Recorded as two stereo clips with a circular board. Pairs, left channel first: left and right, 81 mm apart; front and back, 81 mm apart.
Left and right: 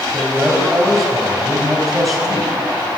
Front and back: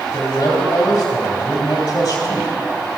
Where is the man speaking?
Straight ahead, 2.5 m.